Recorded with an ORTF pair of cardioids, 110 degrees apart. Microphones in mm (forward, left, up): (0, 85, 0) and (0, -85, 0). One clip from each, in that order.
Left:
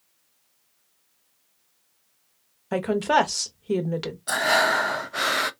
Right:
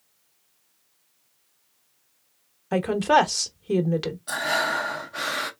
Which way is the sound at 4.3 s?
25° left.